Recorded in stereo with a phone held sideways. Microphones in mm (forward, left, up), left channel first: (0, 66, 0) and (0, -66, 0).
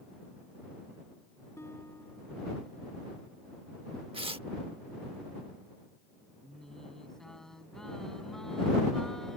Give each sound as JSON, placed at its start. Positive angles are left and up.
{"t": 1.6, "sound": "a guitar", "side_deg": 20}
{"t": 4.1, "sound": "tearing paper", "side_deg": -45}
{"t": 6.4, "sound": "singing", "side_deg": 5}